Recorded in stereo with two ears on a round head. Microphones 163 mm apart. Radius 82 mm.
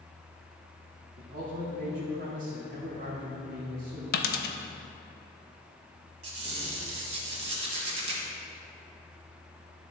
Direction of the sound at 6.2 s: 35° right (ahead or behind).